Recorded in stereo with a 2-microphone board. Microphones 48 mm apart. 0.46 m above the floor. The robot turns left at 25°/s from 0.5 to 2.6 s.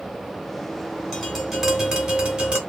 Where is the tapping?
10° left, 1.0 m; by 2.6 s 30° right, 1.0 m.